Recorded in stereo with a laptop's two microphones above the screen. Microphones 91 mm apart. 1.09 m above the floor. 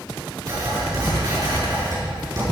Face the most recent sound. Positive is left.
turn(degrees=-45)  # may be behind; listen again after turning